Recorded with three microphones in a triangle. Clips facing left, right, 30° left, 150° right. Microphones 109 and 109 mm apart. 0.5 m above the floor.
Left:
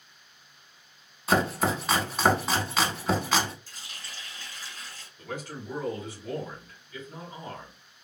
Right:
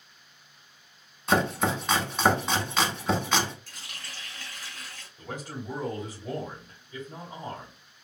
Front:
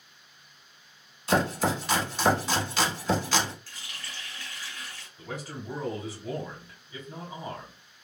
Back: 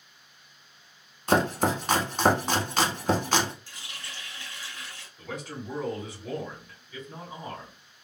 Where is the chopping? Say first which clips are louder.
Even, back 2 dB; 175° left, 0.7 m.